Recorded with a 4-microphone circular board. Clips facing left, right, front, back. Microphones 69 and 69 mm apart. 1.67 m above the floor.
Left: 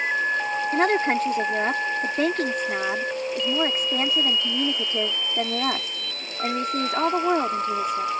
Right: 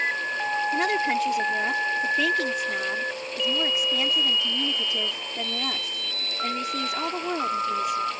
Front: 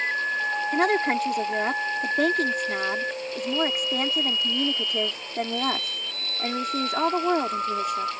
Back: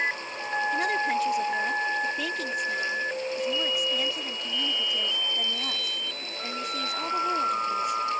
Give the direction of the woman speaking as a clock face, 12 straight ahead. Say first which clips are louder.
Left 5 dB, front 5 dB; 11 o'clock.